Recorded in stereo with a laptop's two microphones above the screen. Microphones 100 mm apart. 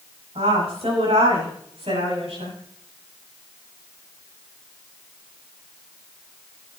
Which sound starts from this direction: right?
A woman speaking, at 0.3 s.